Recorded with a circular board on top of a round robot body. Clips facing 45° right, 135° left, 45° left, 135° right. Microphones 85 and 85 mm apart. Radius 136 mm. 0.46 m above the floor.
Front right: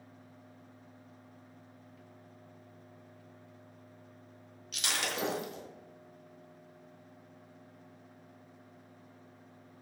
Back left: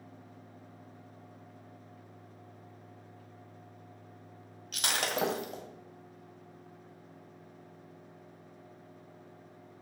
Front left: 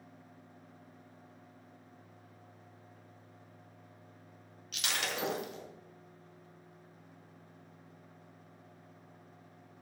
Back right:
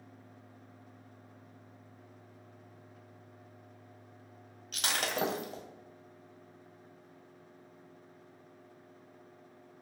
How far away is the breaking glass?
About 1.8 m.